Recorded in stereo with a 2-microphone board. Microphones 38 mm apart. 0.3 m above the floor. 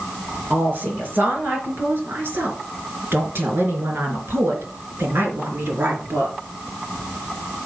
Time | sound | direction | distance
0.5 | a woman speaking | 55° right (ahead or behind) | 4 m